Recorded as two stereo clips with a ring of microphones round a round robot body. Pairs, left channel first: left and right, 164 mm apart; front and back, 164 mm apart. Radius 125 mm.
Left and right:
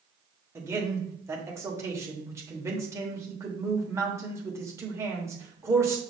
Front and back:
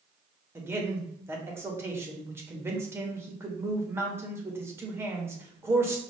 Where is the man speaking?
130° right, 0.9 m.